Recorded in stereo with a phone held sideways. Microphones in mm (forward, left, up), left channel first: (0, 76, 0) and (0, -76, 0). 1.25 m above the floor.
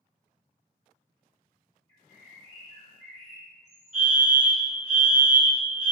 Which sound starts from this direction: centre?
A fire alarm, at 3.9 s.